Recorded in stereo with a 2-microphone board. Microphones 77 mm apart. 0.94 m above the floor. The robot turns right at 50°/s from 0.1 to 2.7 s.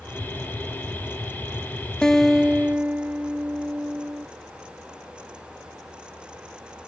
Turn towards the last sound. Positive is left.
turn(degrees=-155)